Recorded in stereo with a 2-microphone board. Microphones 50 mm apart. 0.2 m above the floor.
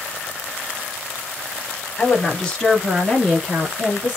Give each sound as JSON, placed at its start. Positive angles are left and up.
{"t": 2.0, "sound": "a woman speaking", "side_deg": 25, "distance_m": 1.3}